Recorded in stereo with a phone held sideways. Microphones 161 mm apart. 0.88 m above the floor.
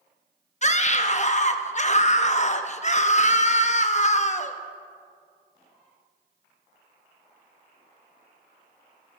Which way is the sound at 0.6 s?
45° left (ahead or behind).